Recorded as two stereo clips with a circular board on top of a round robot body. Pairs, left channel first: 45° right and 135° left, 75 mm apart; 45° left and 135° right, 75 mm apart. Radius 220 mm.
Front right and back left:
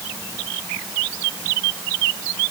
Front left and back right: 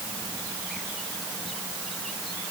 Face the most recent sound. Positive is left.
No sound to turn to.